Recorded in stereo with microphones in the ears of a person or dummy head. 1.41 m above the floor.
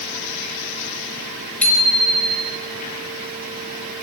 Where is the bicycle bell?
10° left (ahead or behind), 5.5 m.